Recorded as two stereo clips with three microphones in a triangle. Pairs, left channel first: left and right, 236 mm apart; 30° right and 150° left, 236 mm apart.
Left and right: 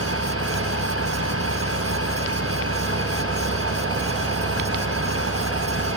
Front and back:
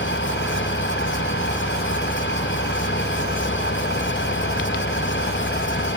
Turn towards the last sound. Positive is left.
turn(degrees=-70)